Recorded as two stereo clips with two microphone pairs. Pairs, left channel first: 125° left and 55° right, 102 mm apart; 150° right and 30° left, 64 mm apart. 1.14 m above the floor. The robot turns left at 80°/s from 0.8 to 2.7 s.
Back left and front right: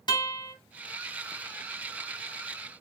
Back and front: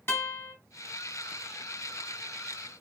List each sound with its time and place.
0.1 s a guitar: 165° left, 3 m